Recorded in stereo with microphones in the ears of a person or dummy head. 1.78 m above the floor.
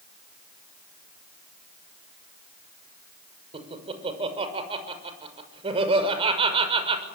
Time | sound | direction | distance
3.5 | laughter | 35° right (ahead or behind) | 6 m